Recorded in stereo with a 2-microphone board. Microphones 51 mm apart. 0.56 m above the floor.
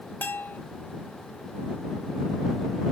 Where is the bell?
40° left (ahead or behind).